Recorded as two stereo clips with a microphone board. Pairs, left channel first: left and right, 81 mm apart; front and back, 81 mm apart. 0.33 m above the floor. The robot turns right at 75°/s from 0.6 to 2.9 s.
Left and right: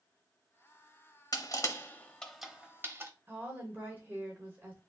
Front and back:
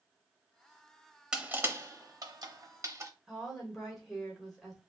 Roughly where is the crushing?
Left.